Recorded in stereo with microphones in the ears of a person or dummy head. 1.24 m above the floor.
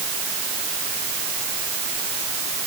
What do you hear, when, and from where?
Only background noise.